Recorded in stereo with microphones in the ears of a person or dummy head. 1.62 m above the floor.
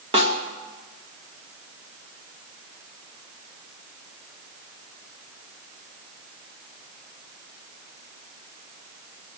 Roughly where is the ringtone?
I don't hear a ringtone.